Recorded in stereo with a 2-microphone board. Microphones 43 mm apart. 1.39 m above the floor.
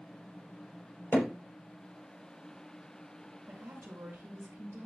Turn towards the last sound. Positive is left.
turn(degrees=-85)